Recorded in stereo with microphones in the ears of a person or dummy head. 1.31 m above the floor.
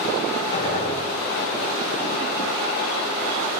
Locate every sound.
0.5 s a gunshot: 30° left (ahead or behind), 2.5 m